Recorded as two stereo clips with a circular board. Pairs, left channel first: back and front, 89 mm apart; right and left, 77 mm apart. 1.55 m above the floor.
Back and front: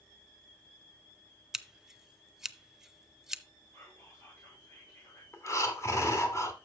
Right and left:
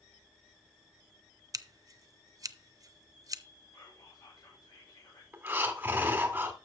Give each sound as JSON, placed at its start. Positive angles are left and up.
{"t": 1.5, "sound": "scissors", "azimuth_deg": 80, "distance_m": 0.6}
{"t": 3.7, "sound": "whispering", "azimuth_deg": -115, "distance_m": 6.0}
{"t": 5.3, "sound": "breathing", "azimuth_deg": 145, "distance_m": 1.8}